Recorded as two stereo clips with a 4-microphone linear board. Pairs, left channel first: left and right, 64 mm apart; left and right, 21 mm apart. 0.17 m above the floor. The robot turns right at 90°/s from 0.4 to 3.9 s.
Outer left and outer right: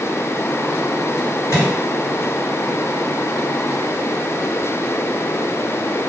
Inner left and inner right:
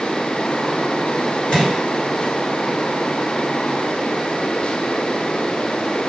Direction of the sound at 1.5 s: 45° left (ahead or behind).